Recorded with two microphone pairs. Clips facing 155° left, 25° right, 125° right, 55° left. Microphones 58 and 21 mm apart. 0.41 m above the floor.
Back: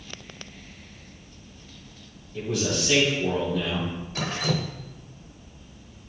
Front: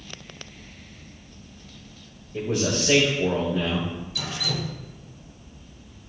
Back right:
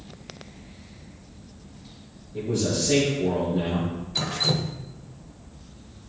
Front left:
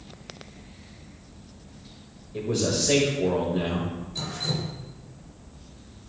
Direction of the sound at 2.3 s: 25° left.